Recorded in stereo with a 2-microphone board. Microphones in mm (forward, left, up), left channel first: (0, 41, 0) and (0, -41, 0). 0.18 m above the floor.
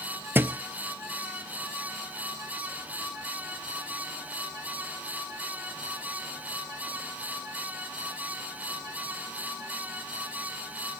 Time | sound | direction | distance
0.3 | a thud | 25° right (ahead or behind) | 0.9 m